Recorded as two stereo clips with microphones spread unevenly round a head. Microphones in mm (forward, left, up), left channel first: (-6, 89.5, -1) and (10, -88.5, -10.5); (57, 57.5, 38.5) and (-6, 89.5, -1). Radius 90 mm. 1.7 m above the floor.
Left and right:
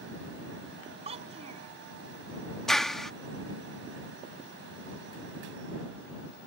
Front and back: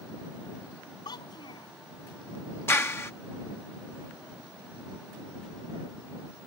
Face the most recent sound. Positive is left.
turn(degrees=10)